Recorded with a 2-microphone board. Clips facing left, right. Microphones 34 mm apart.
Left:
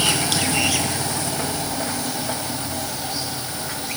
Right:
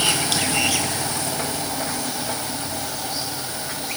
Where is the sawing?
No sawing in this recording.